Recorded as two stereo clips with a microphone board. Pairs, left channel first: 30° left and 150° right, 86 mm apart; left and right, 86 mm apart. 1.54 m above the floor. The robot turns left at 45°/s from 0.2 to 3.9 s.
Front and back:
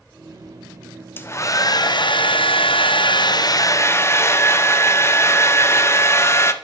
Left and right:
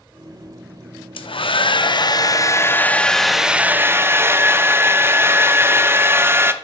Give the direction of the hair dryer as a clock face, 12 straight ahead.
9 o'clock.